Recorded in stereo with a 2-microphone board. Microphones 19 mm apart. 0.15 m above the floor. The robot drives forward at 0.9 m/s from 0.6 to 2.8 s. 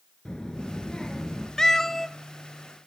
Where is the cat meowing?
30° left (ahead or behind), 0.6 m; by 2.1 s 20° left (ahead or behind), 0.9 m.